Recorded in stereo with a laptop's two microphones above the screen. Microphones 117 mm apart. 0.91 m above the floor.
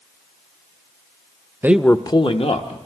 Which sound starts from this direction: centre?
A man speaking, at 1.6 s.